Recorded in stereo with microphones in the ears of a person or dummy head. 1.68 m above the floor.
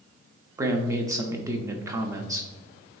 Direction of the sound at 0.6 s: 15° right (ahead or behind).